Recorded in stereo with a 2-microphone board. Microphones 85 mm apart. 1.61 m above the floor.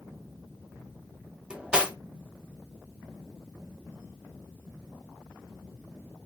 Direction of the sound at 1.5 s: 10° right (ahead or behind).